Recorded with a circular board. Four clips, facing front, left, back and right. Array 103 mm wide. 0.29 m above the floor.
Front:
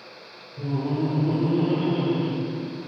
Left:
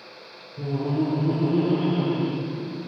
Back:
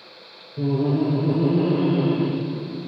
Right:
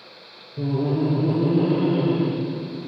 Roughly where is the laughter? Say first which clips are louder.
Right 3 dB, back 5 dB; behind right.